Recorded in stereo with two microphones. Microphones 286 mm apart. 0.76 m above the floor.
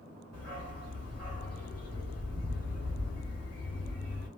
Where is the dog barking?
65° left (ahead or behind), 3 m.